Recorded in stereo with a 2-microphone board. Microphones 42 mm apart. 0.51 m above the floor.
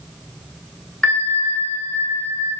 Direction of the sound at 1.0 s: 25° left (ahead or behind).